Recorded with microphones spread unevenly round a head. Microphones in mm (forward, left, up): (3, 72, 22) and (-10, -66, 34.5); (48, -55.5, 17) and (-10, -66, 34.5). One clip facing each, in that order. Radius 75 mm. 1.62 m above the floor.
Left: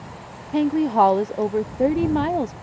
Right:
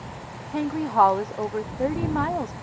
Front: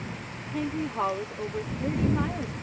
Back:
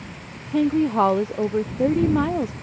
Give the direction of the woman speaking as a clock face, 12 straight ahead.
7 o'clock.